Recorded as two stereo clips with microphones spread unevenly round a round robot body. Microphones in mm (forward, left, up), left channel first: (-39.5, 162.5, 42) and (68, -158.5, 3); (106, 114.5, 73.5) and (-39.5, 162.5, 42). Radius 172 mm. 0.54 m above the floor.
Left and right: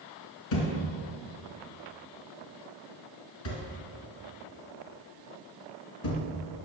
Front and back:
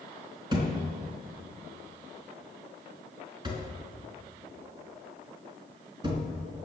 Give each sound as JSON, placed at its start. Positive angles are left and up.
{"t": 0.5, "sound": "a thud", "azimuth_deg": 100, "distance_m": 3.5}